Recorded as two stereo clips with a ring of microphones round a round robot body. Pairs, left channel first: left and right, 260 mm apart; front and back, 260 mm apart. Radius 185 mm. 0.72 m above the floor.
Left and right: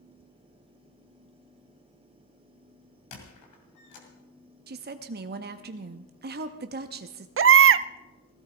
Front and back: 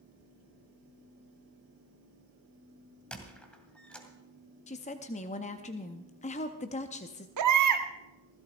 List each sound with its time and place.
3.1 s a squeak: 85° left, 2.5 m
4.7 s a woman speaking: 55° right, 0.7 m
7.4 s a baby crying: 140° right, 0.5 m